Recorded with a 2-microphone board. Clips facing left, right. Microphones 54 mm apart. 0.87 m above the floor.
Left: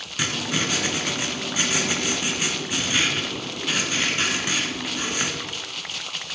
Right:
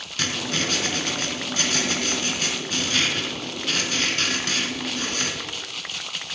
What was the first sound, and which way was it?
Writing, 15° left (ahead or behind).